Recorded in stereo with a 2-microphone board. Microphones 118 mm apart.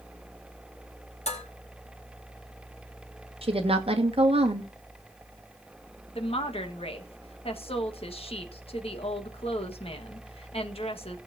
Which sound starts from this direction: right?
A woman speaking, at 3.4 s.